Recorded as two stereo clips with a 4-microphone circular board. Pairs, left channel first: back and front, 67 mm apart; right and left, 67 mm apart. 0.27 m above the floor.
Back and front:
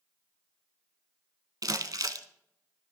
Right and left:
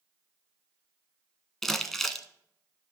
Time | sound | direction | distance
1.6 | crumpling | 5° right | 0.9 m